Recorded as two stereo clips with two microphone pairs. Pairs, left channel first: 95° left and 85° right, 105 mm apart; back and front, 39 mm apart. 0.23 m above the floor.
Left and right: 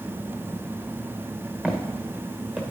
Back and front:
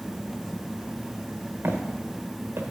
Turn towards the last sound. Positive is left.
turn(degrees=5)